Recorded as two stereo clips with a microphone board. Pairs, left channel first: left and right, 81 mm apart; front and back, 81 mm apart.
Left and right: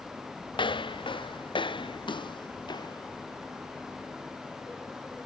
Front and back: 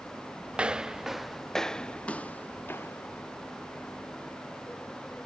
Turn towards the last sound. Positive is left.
turn(degrees=55)